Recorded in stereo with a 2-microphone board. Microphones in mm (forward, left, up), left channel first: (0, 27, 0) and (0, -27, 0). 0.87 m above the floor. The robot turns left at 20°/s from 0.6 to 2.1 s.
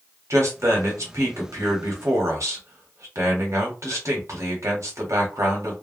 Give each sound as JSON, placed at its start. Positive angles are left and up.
{"t": 0.3, "sound": "a man speaking", "azimuth_deg": -75, "distance_m": 1.2}